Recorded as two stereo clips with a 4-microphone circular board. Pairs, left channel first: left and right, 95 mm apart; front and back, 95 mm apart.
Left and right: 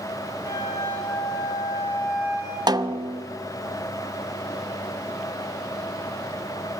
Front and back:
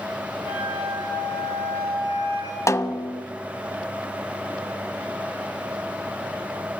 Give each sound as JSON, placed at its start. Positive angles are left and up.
{"t": 0.4, "sound": "a flute", "azimuth_deg": -30, "distance_m": 8.0}
{"t": 2.7, "sound": "a snare drum", "azimuth_deg": -55, "distance_m": 0.9}